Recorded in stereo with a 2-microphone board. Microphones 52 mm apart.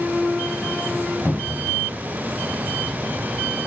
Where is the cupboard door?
40° left (ahead or behind), 1.1 m.